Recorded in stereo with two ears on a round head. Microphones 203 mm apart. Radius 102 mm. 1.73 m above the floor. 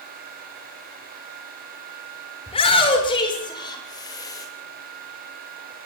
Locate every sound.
2.5 s a shout: 25° left (ahead or behind), 7 m; by 4.5 s 15° left (ahead or behind), 8.5 m